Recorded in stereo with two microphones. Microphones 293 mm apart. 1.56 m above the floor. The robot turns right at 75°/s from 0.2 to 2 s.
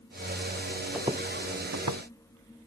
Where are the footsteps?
5° right (ahead or behind); by 2.0 s 80° right.